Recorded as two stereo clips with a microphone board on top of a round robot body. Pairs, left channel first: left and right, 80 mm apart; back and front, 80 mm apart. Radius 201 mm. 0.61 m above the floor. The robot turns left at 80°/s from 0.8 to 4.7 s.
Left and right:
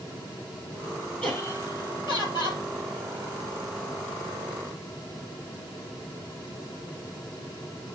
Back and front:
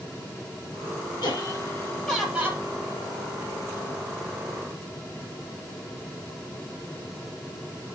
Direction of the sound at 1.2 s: 170° left.